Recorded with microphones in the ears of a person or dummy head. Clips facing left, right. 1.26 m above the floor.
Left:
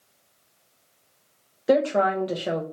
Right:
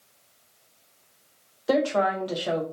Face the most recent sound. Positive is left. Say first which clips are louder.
# left 3 dB
turn(degrees=25)  # may be behind; listen again after turning